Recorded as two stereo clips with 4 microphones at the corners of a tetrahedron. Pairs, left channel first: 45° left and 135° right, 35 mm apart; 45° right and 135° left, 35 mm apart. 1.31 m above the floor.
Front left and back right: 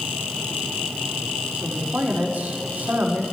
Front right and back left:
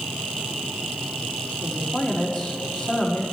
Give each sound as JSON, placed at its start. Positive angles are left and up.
{"t": 1.6, "sound": "a man speaking", "azimuth_deg": -90, "distance_m": 4.0}